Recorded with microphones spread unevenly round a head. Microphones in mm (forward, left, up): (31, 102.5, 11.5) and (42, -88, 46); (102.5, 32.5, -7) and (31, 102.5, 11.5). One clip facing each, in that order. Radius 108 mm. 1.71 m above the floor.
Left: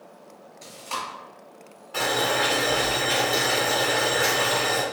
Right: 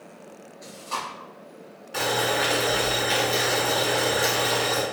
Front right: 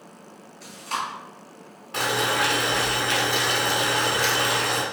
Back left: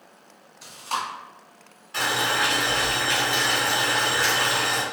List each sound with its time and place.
0.6 s chewing: 105° left, 1.4 m
1.9 s boiling: 15° right, 1.2 m